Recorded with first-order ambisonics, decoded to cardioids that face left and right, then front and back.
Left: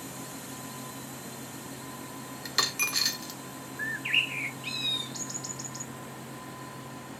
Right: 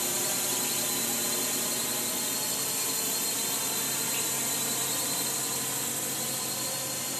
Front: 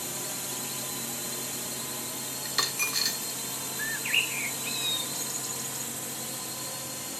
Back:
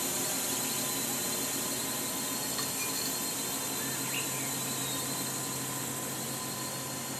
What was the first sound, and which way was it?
A drone, 95° right.